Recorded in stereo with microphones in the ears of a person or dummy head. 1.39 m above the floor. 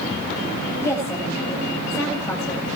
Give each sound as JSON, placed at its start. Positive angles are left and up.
{"t": 0.8, "sound": "a woman speaking", "side_deg": 15, "distance_m": 8.5}